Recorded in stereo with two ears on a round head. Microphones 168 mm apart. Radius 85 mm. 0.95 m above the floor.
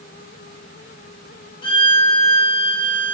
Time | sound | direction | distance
1.6 | a violin | 25° left (ahead or behind) | 1.7 m